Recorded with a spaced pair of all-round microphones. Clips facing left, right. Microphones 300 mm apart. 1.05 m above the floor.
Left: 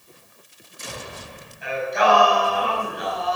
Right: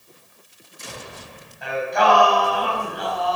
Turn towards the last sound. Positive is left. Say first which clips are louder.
# right 1 dB
turn(degrees=-70)  # may be behind; listen again after turning